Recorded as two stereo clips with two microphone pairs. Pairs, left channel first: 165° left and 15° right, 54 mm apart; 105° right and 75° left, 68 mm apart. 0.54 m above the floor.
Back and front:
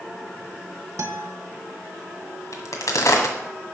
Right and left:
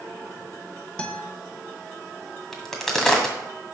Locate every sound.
1.0 s a guitar: 30° right, 0.9 m
2.5 s a crack: 170° left, 1.7 m